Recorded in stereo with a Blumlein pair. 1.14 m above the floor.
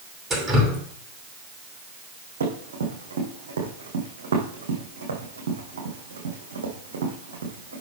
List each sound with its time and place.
0.3 s dripping: 15° right, 2.5 m
2.4 s running footsteps: 65° right, 4 m